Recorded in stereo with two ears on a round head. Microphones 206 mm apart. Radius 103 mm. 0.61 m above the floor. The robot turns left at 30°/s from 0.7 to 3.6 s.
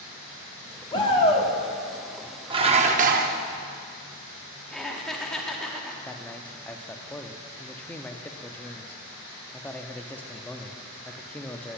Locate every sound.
0.9 s a shout: 20° left (ahead or behind), 1.4 m; by 1.5 s 30° left (ahead or behind), 1.4 m
2.5 s dishes clattering: 20° right (ahead or behind), 0.6 m; by 3.4 s 45° right (ahead or behind), 0.6 m
4.7 s laughter: centre (ahead or behind), 1.2 m
6.1 s a man speaking: 5° left (ahead or behind), 0.6 m